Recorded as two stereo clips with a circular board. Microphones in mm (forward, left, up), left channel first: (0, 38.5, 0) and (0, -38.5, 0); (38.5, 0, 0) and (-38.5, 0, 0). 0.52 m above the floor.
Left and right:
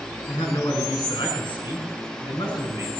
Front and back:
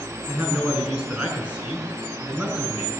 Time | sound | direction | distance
0.3 | a man speaking | 110° left | 5 m